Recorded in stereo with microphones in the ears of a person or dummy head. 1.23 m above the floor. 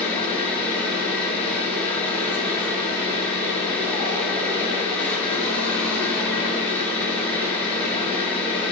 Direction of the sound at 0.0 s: 10° left (ahead or behind).